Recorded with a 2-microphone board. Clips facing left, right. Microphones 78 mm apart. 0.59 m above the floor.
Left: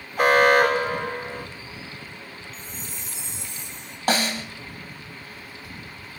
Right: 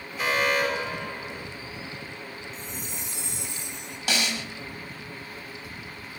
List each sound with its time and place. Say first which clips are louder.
0.2 s an alarm: left 9 dB; 55° left (ahead or behind), 2.0 m
2.5 s a chime: right 2 dB; 65° right (ahead or behind), 4 m
4.1 s a snare drum: left 5 dB; 40° left (ahead or behind), 2.5 m